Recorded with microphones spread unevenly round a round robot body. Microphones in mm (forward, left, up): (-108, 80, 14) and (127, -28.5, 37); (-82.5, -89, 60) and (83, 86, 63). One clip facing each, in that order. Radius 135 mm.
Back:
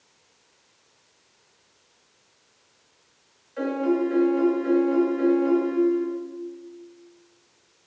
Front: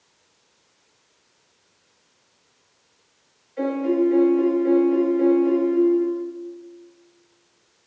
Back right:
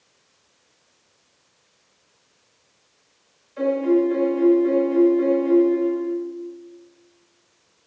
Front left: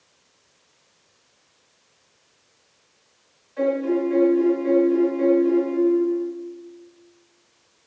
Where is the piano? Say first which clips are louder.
Front 3 dB, back right 3 dB; 170° left, 2.5 m.